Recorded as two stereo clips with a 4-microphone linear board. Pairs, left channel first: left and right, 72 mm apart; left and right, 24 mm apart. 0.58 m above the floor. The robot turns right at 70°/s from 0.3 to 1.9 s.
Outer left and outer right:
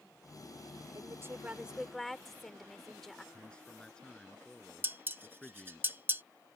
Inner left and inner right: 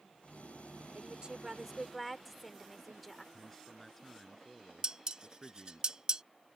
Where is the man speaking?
10° left (ahead or behind).